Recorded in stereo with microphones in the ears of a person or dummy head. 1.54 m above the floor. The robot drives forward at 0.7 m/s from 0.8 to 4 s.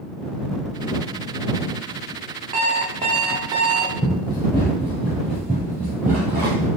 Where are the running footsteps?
20° left (ahead or behind), 1.7 m; by 6.7 s 15° right (ahead or behind), 1.9 m.